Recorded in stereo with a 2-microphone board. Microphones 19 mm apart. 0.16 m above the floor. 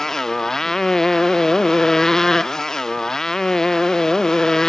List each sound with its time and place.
0.0 s a motorcycle: 30° left (ahead or behind); by 4.7 s 35° left (ahead or behind)